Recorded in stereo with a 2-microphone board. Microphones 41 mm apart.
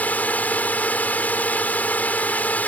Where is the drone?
40° left (ahead or behind).